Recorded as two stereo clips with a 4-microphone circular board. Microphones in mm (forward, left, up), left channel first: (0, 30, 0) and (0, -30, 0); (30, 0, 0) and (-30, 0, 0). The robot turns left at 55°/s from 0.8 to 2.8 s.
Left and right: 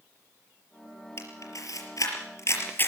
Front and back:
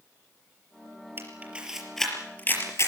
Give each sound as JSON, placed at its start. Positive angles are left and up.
{"t": 1.2, "sound": "a camera shutter", "azimuth_deg": 130, "distance_m": 4.5}